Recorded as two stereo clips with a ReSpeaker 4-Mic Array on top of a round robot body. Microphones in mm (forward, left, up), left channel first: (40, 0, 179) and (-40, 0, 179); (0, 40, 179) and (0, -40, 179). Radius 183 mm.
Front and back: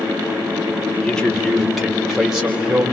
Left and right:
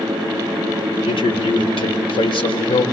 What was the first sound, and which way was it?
A man speaking, 85° left.